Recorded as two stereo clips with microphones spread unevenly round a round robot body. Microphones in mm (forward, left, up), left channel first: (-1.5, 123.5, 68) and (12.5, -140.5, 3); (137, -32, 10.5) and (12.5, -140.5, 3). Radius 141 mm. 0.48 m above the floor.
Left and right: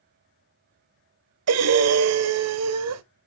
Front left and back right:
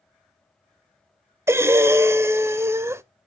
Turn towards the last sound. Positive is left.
turn(degrees=-65)